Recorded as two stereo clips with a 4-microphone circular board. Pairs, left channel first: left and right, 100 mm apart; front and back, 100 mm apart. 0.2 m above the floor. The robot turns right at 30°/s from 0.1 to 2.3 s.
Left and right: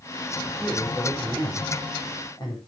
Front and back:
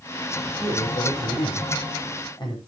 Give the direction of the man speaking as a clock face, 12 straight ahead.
12 o'clock.